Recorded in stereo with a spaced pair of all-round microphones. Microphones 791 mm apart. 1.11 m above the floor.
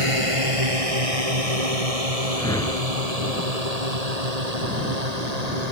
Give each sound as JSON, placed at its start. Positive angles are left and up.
{"t": 0.0, "sound": "a drone", "side_deg": -40}
{"t": 2.4, "sound": "a whoosh", "side_deg": 5}